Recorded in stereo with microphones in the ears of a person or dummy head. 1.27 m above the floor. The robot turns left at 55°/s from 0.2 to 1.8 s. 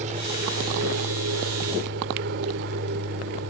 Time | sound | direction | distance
0.0 | an aircraft | 40° right (ahead or behind) | ?